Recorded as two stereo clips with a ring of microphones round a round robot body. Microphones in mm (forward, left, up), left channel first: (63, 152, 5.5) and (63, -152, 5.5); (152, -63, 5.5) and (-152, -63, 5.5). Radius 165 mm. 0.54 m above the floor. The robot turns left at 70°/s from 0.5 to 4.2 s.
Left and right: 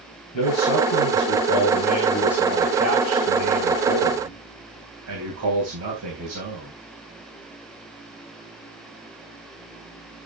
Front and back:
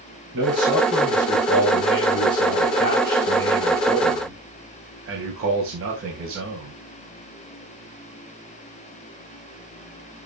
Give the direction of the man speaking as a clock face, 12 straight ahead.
8 o'clock.